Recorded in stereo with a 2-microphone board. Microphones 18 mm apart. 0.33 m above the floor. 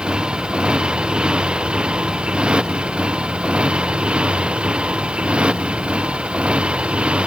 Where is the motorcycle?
50° right (ahead or behind); by 7.3 s 70° right (ahead or behind).